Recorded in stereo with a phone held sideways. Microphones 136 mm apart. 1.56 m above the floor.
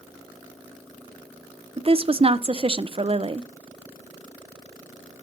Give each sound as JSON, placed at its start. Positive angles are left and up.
{"t": 1.8, "sound": "a woman speaking", "side_deg": -45, "distance_m": 0.6}